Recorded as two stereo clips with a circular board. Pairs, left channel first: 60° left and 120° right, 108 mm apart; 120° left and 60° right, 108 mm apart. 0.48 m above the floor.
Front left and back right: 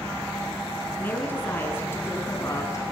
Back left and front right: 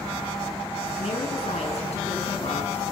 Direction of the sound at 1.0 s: 130° left.